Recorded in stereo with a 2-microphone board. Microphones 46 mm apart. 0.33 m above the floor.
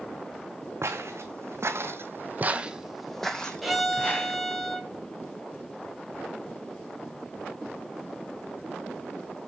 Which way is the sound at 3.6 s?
Centre (ahead or behind).